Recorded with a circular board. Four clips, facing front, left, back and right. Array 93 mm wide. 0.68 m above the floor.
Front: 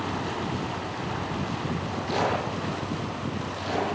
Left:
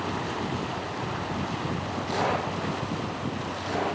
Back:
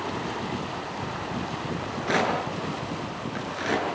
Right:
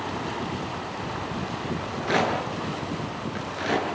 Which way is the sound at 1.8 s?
140° right.